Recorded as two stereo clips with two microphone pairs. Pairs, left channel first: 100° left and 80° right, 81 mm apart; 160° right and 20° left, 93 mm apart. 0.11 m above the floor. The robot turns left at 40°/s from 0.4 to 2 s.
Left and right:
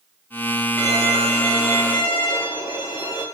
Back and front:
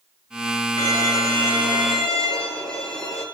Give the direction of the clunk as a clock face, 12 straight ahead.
No clunk in this recording.